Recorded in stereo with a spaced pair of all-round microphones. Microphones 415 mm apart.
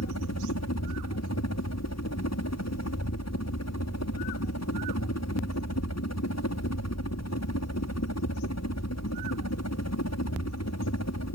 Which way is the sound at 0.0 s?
40° left (ahead or behind).